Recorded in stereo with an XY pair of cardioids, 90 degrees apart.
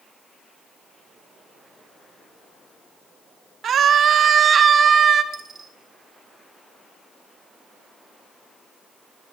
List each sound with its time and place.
3.6 s a scream: 60° right, 2 m; by 5.2 s 50° right, 3.5 m
5.3 s a dropped coin: 45° right, 4.5 m